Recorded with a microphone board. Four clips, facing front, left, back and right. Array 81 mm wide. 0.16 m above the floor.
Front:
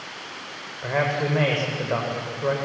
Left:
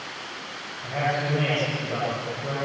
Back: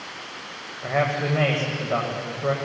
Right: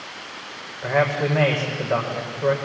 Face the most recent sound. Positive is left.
turn(degrees=-55)